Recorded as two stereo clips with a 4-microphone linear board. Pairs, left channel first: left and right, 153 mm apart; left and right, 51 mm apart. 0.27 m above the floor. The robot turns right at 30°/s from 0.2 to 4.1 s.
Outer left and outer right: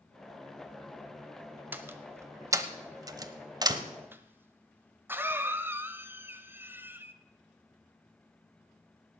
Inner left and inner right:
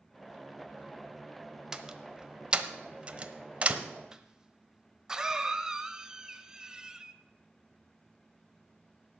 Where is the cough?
15° right (ahead or behind), 0.9 m.